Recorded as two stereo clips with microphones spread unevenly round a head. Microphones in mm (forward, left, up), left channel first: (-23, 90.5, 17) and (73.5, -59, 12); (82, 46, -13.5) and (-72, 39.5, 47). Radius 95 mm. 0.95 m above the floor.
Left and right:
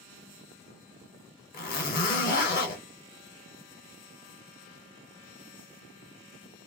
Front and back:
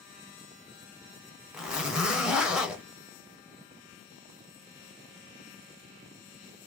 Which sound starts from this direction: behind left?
A zipper, at 1.5 s.